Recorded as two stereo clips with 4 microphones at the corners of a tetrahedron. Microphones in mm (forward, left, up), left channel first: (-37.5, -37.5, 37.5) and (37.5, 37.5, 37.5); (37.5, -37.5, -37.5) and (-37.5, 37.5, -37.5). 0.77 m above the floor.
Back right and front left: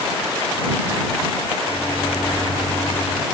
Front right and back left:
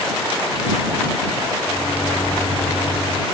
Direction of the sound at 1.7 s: 90° right.